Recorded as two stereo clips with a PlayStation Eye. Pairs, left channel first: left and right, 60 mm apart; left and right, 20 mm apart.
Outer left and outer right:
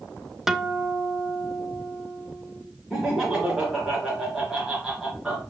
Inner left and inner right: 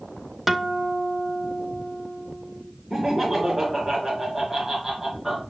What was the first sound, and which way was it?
A guitar, 5° right (ahead or behind).